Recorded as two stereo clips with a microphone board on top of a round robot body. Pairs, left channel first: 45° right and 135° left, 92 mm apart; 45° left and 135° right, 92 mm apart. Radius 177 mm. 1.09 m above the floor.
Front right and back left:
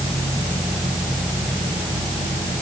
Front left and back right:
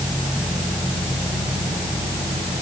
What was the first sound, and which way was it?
Only background noise.